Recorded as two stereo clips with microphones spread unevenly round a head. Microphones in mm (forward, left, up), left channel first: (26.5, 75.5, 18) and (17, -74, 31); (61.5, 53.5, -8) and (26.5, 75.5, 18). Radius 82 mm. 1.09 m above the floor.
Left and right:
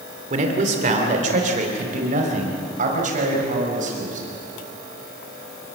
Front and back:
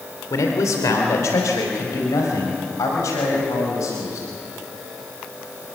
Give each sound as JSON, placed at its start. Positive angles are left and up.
{"t": 0.3, "sound": "a man speaking", "azimuth_deg": -50, "distance_m": 3.0}